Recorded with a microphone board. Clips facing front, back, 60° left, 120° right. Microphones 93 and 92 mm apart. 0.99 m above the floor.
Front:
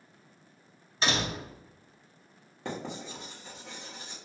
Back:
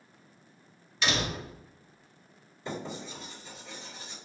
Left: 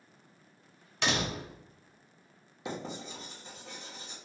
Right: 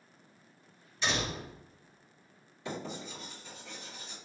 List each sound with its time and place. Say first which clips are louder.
1.0 s a door slam: even, left 2 dB; 55° left, 0.6 m
2.6 s writing: even, left 1 dB; 10° left, 1.5 m